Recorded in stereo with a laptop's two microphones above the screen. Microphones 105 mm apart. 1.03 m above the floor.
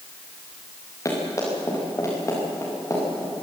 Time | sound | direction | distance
1.1 | running footsteps | 30° left (ahead or behind) | 7.5 m